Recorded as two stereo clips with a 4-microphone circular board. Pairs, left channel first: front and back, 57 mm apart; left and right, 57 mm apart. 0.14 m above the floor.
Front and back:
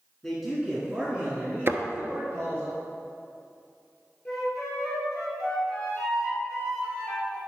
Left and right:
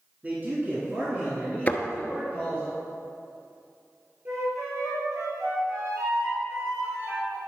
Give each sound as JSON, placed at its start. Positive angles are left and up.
{"t": 0.2, "sound": "a man speaking", "azimuth_deg": -75, "distance_m": 1.4}
{"t": 1.7, "sound": "a thud", "azimuth_deg": 145, "distance_m": 0.9}
{"t": 4.2, "sound": "a flute", "azimuth_deg": -80, "distance_m": 3.0}